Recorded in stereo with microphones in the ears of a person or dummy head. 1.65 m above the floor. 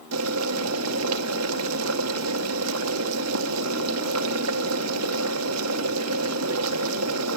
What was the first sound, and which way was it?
Boiling, 90° right.